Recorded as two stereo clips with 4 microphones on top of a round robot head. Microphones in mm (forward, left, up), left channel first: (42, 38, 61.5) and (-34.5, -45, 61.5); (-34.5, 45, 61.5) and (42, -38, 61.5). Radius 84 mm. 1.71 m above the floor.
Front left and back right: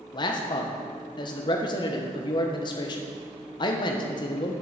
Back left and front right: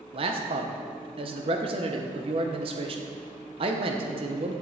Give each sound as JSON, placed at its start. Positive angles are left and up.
{"t": 0.1, "sound": "a man speaking", "azimuth_deg": -5, "distance_m": 1.2}